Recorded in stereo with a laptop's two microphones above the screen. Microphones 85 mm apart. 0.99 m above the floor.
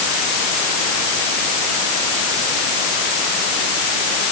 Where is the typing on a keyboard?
No typing on a keyboard in this recording.